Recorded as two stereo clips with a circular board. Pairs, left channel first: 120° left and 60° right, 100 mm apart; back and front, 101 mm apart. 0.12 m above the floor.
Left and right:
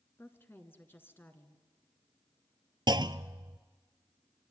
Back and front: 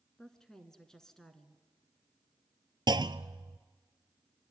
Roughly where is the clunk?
Ahead right.